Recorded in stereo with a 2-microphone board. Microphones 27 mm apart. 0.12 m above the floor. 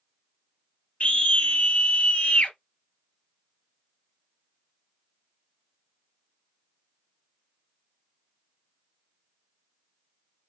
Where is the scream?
55° left (ahead or behind), 3 m.